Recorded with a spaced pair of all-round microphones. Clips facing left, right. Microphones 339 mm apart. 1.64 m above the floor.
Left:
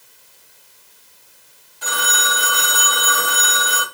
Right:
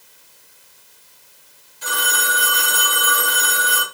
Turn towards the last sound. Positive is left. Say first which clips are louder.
# left 1 dB
turn(degrees=65)  # may be behind; listen again after turning